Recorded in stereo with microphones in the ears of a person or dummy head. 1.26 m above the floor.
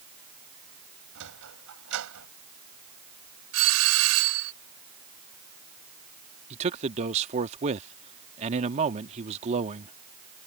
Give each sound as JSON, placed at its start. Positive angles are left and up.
{"t": 1.1, "sound": "a sliding door", "side_deg": -70}
{"t": 3.5, "sound": "a doorbell", "side_deg": -85}
{"t": 6.5, "sound": "a man speaking", "side_deg": -35}